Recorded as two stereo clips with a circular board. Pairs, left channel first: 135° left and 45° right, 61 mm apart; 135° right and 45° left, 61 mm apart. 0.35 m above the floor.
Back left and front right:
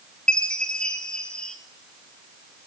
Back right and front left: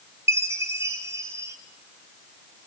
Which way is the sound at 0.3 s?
65° left.